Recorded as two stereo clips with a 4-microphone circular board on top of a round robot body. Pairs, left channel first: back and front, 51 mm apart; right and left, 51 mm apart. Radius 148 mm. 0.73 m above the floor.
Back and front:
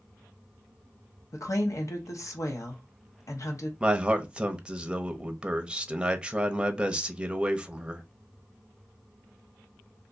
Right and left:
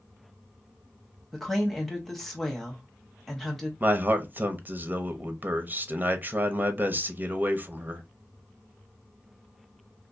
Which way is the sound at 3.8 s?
60° left.